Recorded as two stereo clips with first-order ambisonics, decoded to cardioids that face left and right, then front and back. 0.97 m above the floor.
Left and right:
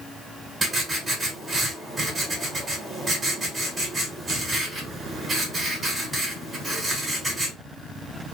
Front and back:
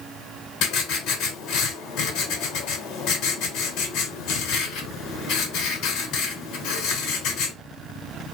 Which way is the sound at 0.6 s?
20° right.